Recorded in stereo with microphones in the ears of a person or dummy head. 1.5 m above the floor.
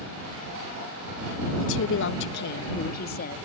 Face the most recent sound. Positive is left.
turn(degrees=55)  # may be behind; listen again after turning